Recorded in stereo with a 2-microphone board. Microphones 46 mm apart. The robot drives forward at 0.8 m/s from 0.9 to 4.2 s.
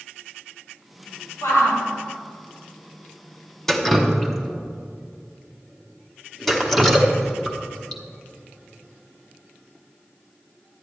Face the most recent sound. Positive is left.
turn(degrees=5)  # may be behind; listen again after turning